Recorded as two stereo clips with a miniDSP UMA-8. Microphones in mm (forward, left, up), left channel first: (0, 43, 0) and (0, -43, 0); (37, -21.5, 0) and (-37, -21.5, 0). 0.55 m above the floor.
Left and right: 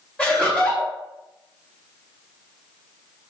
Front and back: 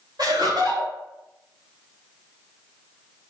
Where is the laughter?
160° left, 2.5 m.